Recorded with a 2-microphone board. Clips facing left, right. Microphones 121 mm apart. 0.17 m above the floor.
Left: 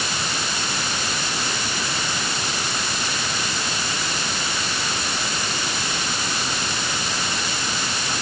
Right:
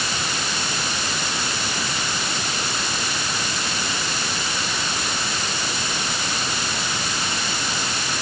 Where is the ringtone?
I don't hear a ringtone.